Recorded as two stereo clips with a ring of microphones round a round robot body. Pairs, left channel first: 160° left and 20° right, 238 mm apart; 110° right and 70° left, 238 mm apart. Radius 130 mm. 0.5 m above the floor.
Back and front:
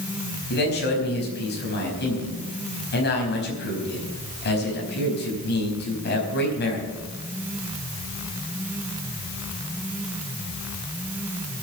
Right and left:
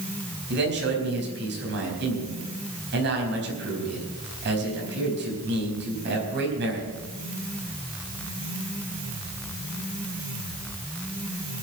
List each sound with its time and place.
0.5 s a man speaking: 110° left, 4.5 m